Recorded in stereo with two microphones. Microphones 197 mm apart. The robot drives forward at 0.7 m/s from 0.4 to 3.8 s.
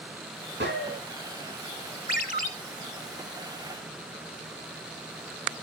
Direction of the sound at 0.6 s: 65° right (ahead or behind).